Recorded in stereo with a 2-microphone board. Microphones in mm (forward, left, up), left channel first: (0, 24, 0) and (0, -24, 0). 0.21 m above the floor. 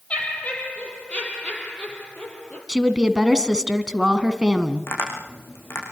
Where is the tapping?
60° left (ahead or behind), 8.5 m.